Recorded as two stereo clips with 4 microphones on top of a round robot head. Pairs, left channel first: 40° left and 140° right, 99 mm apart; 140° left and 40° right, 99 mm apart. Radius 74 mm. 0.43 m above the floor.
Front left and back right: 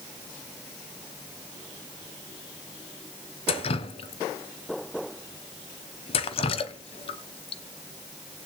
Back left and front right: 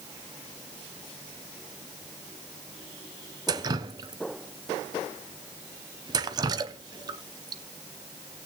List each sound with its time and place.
3.5 s dripping: 10° left, 0.8 m